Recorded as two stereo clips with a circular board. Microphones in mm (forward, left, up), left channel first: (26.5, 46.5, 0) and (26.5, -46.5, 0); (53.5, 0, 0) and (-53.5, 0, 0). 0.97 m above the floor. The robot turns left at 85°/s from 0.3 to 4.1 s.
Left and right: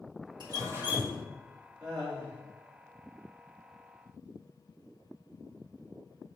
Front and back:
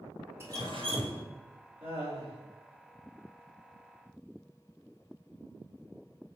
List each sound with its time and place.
0.4 s dripping: 115° right, 1.8 m; by 1.2 s 170° left, 1.8 m
1.8 s laughter: 170° right, 2.5 m; by 2.4 s 140° left, 2.5 m